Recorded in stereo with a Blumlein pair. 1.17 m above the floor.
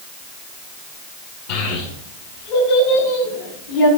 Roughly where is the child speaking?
Ahead left.